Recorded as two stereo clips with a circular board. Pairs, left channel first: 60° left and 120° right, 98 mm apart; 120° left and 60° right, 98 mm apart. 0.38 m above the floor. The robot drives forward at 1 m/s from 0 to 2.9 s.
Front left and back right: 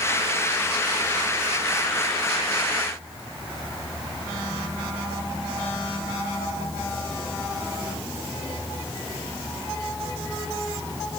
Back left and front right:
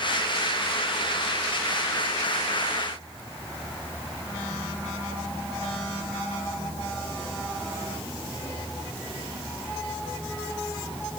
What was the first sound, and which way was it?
Only background noise.